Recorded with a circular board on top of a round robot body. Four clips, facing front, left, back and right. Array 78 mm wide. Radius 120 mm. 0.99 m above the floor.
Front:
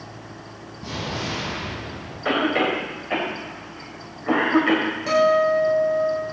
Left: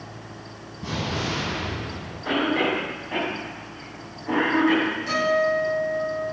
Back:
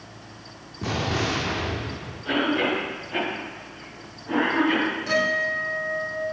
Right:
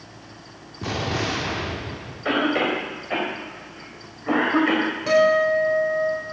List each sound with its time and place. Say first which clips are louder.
0.8 s an explosion: right 3 dB, back 4 dB; 130° right, 2.5 m
2.2 s a cough: right 1 dB, front 2 dB; 35° right, 4.5 m
5.1 s a guitar: right 6 dB, front 12 dB; 55° right, 5.5 m